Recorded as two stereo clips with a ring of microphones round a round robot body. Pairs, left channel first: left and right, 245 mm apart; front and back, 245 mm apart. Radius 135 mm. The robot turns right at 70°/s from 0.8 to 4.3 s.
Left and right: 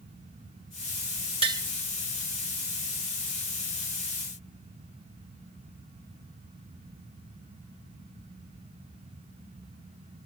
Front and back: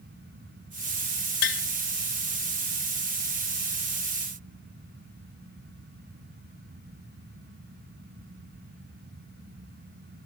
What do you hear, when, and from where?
1.4 s tapping: 30° right, 1.7 m; by 1.6 s 15° right, 1.7 m